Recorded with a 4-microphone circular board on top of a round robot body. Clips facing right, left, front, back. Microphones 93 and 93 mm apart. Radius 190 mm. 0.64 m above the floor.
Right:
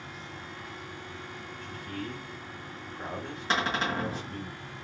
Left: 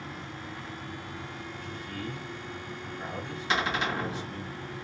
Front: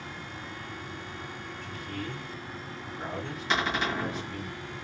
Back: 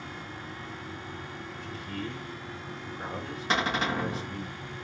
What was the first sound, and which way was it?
A man speaking, 130° right.